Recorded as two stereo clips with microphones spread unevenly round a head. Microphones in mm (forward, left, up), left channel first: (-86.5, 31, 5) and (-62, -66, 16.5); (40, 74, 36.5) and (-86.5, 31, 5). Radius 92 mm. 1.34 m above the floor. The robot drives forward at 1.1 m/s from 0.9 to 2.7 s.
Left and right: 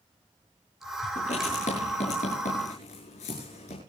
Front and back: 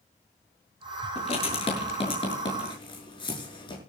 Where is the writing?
55° left, 7 m; by 3.8 s 70° left, 6.5 m.